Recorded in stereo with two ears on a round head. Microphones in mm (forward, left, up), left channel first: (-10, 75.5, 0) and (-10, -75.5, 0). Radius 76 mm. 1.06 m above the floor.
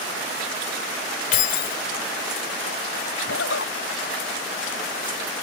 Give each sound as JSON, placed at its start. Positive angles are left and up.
{"t": 1.3, "sound": "keys jangling", "side_deg": 45}
{"t": 3.3, "sound": "a zipper", "side_deg": 80}